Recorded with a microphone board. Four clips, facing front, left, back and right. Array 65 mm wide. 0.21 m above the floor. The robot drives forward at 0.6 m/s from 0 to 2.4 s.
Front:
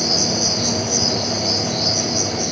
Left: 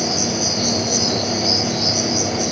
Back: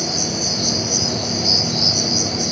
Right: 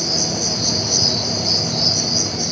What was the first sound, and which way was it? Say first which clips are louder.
An insect: left 3 dB, front 2 dB; 30° right.